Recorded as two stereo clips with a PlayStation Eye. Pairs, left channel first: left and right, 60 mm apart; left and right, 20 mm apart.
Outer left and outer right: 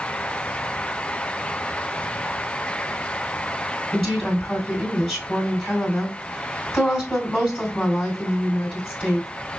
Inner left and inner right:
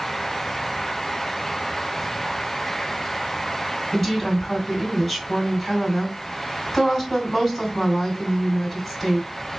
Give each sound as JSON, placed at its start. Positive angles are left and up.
{"t": 3.9, "sound": "a woman speaking", "side_deg": 15, "distance_m": 2.5}